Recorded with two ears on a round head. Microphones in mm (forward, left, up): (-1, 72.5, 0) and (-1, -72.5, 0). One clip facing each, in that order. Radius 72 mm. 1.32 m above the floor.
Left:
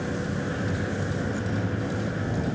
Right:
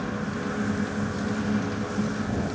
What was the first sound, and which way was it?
A vehicle, 30° left (ahead or behind).